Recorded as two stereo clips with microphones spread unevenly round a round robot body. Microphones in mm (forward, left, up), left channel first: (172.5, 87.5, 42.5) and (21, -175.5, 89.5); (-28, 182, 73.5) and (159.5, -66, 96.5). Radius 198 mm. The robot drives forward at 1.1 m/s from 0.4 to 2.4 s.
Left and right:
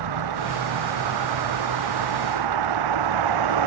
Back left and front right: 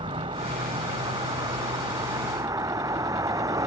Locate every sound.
0.0 s a vehicle: 130° right; by 3.7 s 135° right